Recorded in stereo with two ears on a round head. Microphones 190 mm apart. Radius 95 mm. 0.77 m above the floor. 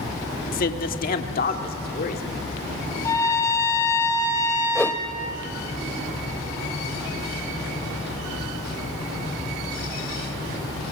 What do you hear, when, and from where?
0.5 s a man speaking: 40° left (ahead or behind), 1.3 m; by 2.2 s 45° left (ahead or behind), 2.5 m
3.0 s a trumpet: 15° left (ahead or behind), 2 m
4.8 s a whoosh: 5° left (ahead or behind), 0.6 m